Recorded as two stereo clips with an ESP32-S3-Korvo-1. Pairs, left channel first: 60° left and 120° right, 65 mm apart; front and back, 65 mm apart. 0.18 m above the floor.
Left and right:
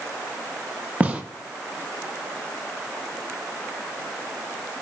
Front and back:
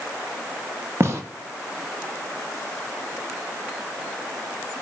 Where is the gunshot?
175° right, 0.6 m.